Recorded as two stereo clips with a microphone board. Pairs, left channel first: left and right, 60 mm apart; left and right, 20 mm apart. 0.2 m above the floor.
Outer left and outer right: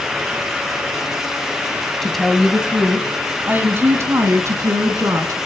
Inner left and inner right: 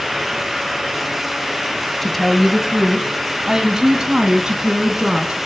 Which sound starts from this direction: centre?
A woman speaking, at 2.0 s.